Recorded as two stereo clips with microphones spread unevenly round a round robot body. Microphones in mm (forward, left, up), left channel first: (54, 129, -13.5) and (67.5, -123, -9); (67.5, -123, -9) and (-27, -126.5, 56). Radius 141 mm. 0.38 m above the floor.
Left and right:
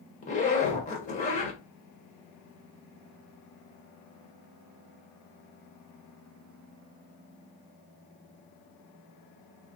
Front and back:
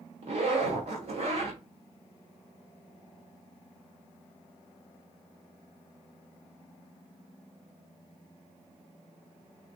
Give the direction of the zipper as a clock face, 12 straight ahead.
7 o'clock.